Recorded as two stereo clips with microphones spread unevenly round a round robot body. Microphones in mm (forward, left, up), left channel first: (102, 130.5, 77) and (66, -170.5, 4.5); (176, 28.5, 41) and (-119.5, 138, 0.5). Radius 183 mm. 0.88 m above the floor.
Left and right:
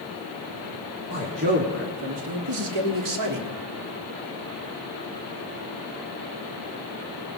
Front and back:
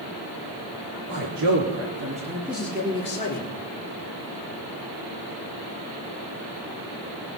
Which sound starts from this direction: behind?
A man speaking, at 1.1 s.